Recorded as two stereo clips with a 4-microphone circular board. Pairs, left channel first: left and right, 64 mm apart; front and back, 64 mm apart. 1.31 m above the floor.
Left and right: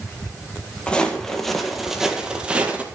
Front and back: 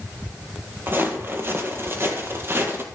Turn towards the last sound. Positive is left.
turn(degrees=-145)